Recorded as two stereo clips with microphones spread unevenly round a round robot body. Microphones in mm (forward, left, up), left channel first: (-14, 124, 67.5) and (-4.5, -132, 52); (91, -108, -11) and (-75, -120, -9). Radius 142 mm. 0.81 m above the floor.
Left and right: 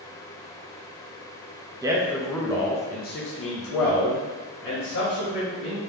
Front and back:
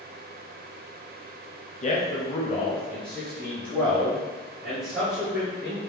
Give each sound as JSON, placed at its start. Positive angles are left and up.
{"t": 1.8, "sound": "a man speaking", "azimuth_deg": -20, "distance_m": 0.9}